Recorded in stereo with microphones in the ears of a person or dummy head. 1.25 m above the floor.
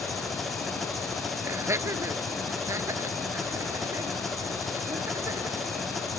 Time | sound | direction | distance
0.0 | an engine running | centre (ahead or behind) | ?
1.4 | laughter | 15° right (ahead or behind) | ?